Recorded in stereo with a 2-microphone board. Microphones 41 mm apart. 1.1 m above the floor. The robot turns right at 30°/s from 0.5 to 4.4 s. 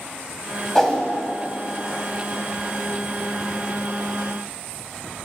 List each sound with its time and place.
0.8 s a whoosh: 10° left (ahead or behind), 1.0 m